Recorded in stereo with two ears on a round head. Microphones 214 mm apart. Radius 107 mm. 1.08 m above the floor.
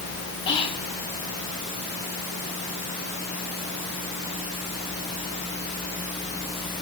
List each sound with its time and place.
0.5 s whispering: 25° left (ahead or behind), 2 m